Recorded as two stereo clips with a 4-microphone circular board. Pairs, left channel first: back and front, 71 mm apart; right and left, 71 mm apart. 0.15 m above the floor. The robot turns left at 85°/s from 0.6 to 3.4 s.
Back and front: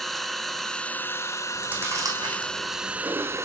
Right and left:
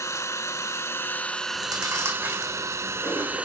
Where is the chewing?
85° left, 5 m; by 3.5 s 75° right, 5 m.